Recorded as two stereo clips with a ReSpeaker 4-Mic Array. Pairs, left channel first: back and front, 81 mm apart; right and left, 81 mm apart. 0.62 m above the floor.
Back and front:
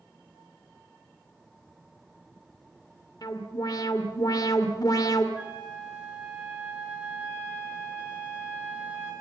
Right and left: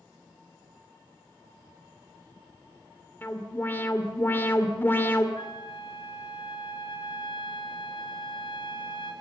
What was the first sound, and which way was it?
An alarm, 150° right.